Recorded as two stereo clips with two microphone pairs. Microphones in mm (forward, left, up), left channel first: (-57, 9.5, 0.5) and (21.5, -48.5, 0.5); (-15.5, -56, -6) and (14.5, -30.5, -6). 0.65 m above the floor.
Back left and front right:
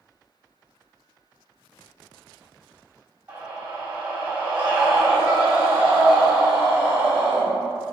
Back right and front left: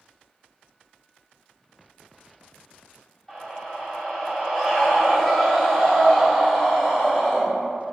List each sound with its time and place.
3.3 s a scream: 80° right, 1.0 m